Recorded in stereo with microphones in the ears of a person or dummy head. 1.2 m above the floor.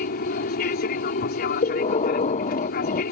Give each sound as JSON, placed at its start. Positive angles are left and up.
{"t": 0.0, "sound": "an aircraft", "side_deg": 50}
{"t": 1.6, "sound": "breathing", "side_deg": 35}